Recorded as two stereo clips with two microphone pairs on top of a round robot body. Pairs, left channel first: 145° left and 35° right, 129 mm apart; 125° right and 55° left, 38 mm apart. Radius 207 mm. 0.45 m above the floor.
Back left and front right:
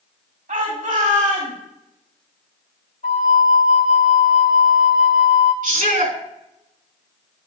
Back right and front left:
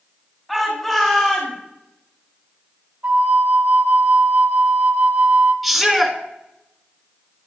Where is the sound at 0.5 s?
40° right, 3 m; by 1.6 s 55° right, 3 m.